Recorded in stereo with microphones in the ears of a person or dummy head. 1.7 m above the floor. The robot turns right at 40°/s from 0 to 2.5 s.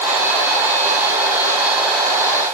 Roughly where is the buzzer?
I don't hear a buzzer.